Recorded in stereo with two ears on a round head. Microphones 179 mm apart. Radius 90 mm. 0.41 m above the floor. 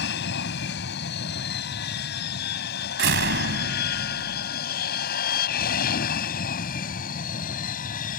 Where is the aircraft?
60° left (ahead or behind); by 8.2 s 40° left (ahead or behind).